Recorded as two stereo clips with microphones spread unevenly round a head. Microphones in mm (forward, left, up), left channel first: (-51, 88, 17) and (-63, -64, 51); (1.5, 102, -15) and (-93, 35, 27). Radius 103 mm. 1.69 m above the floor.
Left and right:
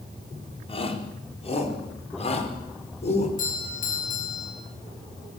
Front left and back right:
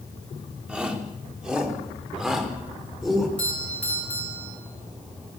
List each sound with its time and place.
0.7 s a shout: 135° left, 5 m; by 3.3 s 130° left, 6 m
3.4 s a doorbell: 110° left, 9 m